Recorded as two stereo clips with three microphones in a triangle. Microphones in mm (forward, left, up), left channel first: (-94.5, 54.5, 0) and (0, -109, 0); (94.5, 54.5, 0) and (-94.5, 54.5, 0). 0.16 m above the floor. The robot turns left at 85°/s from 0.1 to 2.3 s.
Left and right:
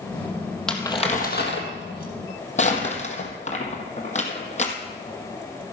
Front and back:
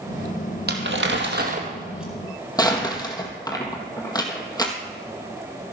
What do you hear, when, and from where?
0.7 s crumpling: 155° right, 1.9 m; by 4.7 s 70° left, 1.9 m